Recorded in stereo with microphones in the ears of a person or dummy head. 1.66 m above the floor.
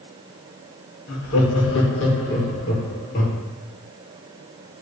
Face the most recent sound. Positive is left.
turn(degrees=55)  # may be behind; listen again after turning